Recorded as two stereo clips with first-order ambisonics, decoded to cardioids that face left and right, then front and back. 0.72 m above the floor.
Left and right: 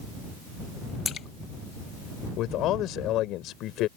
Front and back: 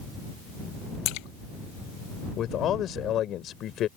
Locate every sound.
1.1 s a splash: 25° left
2.4 s a man speaking: 50° left